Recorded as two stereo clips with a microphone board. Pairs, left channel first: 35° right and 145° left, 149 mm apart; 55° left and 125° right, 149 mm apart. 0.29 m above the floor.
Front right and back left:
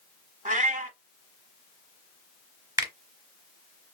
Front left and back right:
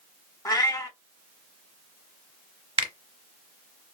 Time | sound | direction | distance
0.5 | a cat meowing | 120° left | 0.8 m
2.8 | a finger snap | 160° right | 0.9 m